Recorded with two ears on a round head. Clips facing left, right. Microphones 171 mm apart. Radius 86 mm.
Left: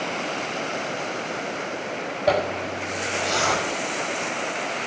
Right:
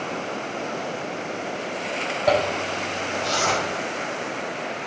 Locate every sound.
2.3 s a zipper: centre (ahead or behind), 5.5 m